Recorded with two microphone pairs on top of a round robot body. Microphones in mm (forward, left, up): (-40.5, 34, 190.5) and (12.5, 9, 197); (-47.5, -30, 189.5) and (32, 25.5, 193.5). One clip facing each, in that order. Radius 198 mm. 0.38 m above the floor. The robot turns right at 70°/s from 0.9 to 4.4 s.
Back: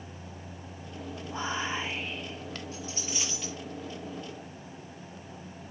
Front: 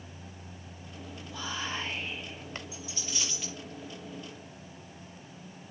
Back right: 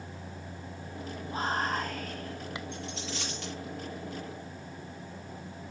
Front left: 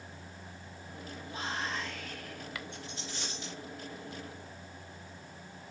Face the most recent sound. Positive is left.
turn(degrees=-45)